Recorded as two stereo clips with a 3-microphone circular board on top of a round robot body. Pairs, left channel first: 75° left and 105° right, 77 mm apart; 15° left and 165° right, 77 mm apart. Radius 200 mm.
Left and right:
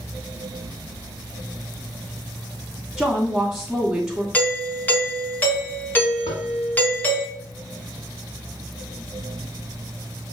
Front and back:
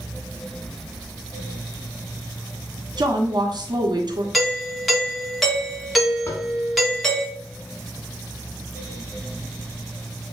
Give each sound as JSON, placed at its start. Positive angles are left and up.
{"t": 3.0, "sound": "a woman speaking", "azimuth_deg": 170, "distance_m": 1.7}
{"t": 4.3, "sound": "a doorbell", "azimuth_deg": 105, "distance_m": 1.7}
{"t": 6.3, "sound": "tapping", "azimuth_deg": 75, "distance_m": 1.1}